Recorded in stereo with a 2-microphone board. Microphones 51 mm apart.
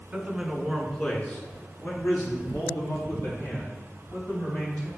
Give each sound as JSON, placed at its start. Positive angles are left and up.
{"t": 0.1, "sound": "a man speaking", "side_deg": -20, "distance_m": 1.3}